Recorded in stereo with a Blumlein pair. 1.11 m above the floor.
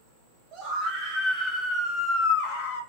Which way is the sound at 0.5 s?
35° right.